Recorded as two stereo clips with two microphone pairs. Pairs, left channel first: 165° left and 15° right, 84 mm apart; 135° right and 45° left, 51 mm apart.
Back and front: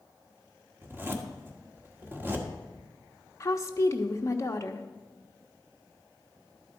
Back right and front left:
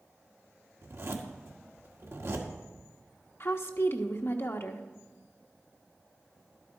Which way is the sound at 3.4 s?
150° right.